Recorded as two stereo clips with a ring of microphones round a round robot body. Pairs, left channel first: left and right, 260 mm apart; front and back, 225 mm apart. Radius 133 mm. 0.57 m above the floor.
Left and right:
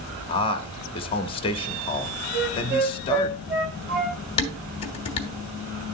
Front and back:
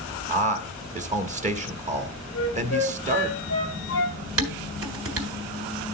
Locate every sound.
0.3 s a man speaking: 145° left, 1.3 m
2.3 s a flute: 40° right, 2.5 m
4.4 s dishes clattering: 160° left, 2 m